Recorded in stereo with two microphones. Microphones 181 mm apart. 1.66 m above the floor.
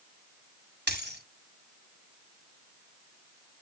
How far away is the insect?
I don't hear an insect.